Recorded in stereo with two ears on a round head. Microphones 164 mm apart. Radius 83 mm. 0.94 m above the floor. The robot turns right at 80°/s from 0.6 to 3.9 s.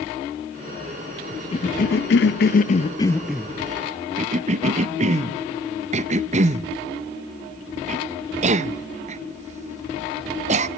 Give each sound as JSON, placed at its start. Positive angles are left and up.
{"t": 1.5, "sound": "a cough", "side_deg": 30, "distance_m": 0.7}